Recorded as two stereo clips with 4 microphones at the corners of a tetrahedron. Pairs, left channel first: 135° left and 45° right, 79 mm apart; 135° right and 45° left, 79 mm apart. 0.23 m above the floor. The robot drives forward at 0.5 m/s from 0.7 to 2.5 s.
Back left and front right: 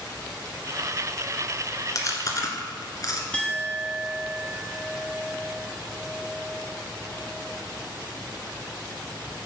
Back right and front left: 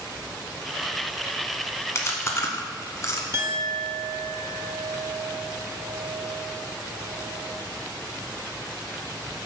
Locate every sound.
1.9 s chewing: 175° left, 1.1 m
3.3 s a clink: 70° left, 1.0 m